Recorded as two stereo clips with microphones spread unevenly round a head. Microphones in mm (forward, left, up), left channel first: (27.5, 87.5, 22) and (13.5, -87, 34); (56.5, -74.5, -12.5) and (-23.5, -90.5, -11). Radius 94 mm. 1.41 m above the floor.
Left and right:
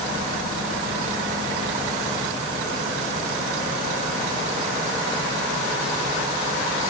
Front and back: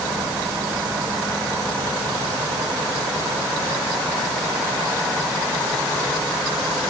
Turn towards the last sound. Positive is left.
No sound to turn to.